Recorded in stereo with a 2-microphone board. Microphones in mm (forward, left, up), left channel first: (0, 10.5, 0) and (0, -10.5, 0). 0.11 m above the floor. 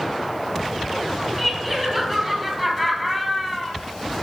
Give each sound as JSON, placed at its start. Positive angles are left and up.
{"t": 1.4, "sound": "laughter", "side_deg": 10, "distance_m": 2.5}